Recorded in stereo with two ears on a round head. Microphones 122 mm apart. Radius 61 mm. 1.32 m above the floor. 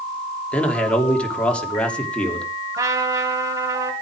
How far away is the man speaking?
About 3 m.